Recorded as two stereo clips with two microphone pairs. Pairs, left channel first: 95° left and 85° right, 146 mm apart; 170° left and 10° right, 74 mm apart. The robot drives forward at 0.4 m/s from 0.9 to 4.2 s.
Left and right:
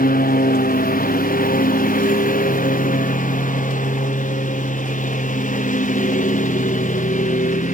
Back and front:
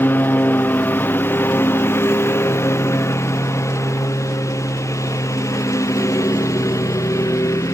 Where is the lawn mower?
110° left; by 7.7 s 125° left.